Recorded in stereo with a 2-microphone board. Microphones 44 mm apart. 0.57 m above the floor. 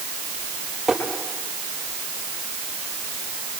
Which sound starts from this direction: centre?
Tapping, at 0.9 s.